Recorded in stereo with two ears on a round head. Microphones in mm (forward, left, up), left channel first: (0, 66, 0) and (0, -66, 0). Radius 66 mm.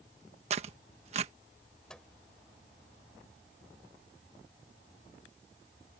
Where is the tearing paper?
45° right (ahead or behind).